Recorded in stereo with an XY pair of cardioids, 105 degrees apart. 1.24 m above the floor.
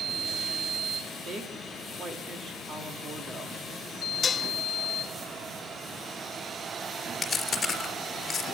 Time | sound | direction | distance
1.2 | a woman speaking | 45° right | 3 m
4.2 | dishes clattering | 35° left | 0.6 m
7.2 | chewing | 25° left | 3.5 m